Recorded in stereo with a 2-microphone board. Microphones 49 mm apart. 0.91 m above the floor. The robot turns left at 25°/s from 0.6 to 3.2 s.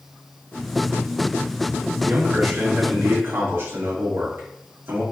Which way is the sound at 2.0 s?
75° right (ahead or behind).